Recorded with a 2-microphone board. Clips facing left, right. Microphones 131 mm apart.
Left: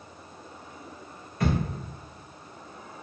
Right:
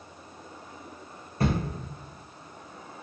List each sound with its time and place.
1.4 s a thud: 35° right (ahead or behind), 2.0 m